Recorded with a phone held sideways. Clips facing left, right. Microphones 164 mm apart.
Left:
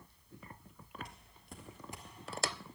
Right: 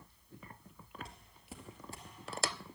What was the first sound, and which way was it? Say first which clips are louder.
Footsteps: right 2 dB; 30° right (ahead or behind).